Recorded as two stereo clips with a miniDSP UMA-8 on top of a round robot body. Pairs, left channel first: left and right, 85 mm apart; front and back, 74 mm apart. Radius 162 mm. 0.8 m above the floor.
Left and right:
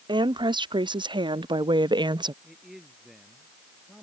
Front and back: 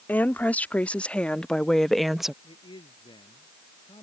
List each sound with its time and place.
0.1 s a woman speaking: 65° right; by 2.3 s 95° right
2.4 s a man speaking: 5° right